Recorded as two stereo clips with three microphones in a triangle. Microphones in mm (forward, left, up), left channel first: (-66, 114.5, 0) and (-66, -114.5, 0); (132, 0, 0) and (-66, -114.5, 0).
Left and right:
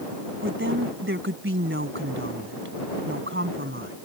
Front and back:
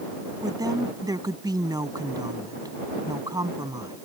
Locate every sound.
0.4 s a woman speaking: 80° right